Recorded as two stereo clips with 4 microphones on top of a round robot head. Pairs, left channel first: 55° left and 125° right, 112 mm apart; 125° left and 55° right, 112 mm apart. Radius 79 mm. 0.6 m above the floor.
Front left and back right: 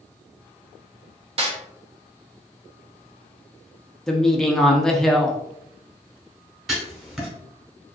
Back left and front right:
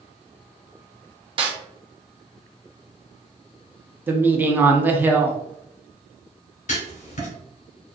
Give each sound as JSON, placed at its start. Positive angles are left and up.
{"t": 1.4, "sound": "a snare drum", "azimuth_deg": -95, "distance_m": 0.8}
{"t": 4.1, "sound": "a woman speaking", "azimuth_deg": -25, "distance_m": 0.6}
{"t": 6.7, "sound": "writing", "azimuth_deg": 145, "distance_m": 0.9}